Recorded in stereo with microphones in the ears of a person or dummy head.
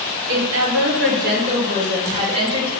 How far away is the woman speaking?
About 1.1 m.